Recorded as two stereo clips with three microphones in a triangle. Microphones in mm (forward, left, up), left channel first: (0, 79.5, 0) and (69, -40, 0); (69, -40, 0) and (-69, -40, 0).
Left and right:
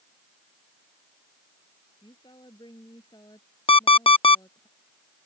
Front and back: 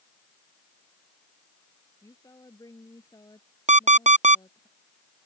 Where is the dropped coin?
I don't hear a dropped coin.